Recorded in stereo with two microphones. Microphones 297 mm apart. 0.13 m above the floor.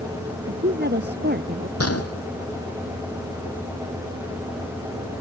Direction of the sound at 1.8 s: 55° left (ahead or behind).